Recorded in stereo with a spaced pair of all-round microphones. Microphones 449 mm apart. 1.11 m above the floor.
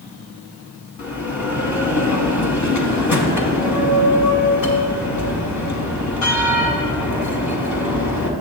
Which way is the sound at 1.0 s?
40° left (ahead or behind).